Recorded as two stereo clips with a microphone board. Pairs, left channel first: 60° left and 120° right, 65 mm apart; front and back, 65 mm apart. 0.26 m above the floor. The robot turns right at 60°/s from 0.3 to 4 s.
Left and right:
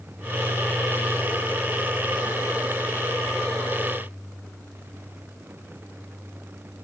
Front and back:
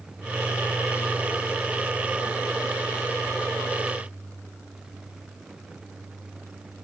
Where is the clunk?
No clunk in this recording.